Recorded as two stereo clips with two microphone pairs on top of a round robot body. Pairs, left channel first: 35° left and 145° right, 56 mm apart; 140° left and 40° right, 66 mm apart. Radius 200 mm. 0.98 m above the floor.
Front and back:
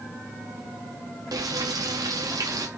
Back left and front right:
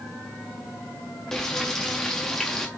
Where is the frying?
130° right, 0.5 m.